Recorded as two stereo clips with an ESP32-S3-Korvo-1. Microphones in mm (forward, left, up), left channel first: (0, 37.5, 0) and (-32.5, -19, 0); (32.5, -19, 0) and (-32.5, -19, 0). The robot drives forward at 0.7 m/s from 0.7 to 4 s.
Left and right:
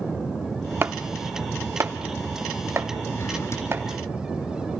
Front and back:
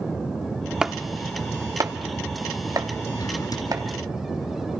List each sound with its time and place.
0.8 s chopping: 110° right, 0.6 m; by 3.9 s 170° right, 2.5 m
3.1 s a drawer: 15° left, 3 m; by 3.7 s 20° left, 2.5 m